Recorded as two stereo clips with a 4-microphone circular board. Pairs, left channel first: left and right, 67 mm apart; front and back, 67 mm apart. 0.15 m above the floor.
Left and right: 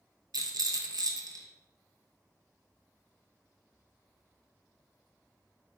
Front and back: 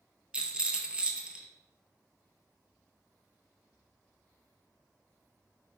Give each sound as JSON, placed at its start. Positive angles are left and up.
{"t": 0.3, "sound": "a rattle", "azimuth_deg": -105, "distance_m": 0.6}